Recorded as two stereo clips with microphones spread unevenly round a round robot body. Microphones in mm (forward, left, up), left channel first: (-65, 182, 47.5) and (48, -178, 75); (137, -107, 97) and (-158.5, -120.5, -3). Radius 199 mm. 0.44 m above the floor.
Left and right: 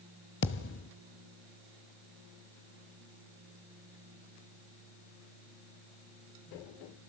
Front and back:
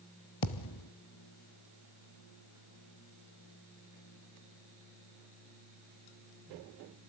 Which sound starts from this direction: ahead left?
A thud, at 0.4 s.